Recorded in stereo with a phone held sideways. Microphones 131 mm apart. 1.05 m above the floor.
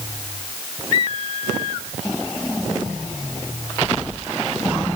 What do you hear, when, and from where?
Only background noise.